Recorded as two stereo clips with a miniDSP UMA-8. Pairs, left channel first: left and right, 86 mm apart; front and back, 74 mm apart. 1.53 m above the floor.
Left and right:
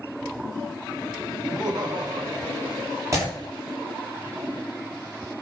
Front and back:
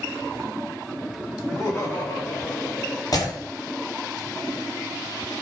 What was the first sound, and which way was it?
Laughter, 45° right.